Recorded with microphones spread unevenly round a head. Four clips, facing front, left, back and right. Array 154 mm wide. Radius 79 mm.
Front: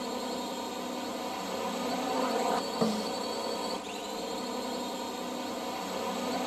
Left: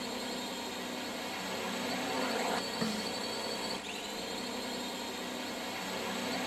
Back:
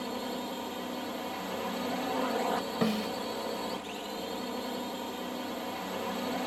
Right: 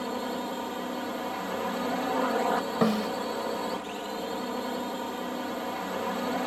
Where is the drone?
70° right.